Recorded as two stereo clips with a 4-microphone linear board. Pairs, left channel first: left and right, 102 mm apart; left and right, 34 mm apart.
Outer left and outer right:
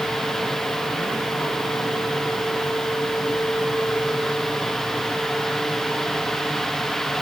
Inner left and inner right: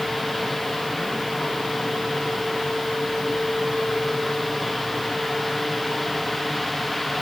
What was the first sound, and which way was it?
Only background noise.